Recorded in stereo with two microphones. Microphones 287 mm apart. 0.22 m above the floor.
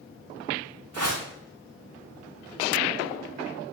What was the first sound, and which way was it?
A whoosh, 75° right (ahead or behind).